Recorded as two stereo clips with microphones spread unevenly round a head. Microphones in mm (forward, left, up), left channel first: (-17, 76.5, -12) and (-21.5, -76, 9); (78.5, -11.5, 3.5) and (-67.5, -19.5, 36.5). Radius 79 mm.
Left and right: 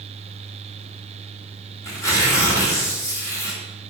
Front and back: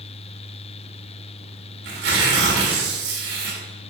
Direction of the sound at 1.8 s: 160° left.